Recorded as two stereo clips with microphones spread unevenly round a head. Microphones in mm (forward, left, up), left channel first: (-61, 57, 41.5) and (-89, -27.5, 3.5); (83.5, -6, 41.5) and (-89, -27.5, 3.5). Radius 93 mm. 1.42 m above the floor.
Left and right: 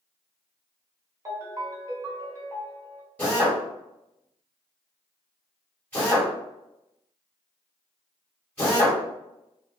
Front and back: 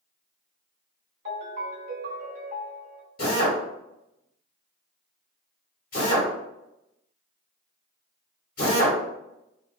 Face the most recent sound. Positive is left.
turn(degrees=10)